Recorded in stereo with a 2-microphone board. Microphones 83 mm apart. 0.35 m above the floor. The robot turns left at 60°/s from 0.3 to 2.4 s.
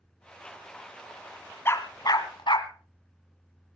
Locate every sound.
1.6 s a dog barking: 30° left (ahead or behind), 1.2 m; by 2.7 s 70° left (ahead or behind), 1.2 m